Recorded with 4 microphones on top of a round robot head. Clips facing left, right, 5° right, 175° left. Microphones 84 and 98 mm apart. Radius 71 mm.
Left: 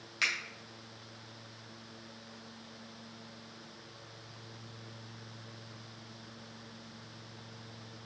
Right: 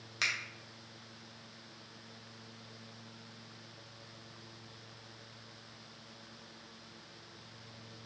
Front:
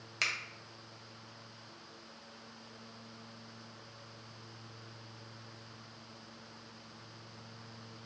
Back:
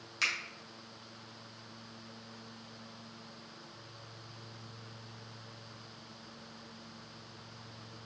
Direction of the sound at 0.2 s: 35° right.